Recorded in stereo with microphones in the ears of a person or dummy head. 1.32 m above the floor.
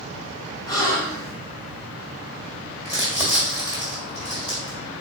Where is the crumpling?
5° right (ahead or behind), 1.8 m.